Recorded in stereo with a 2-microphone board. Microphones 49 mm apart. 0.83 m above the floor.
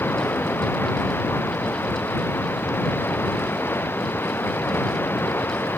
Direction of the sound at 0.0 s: 50° left (ahead or behind).